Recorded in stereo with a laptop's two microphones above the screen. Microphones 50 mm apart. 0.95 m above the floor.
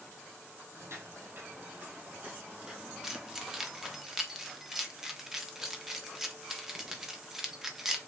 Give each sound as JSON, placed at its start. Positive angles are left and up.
{"t": 0.7, "sound": "footsteps", "side_deg": -55, "distance_m": 1.7}
{"t": 3.0, "sound": "keys jangling", "side_deg": -10, "distance_m": 0.9}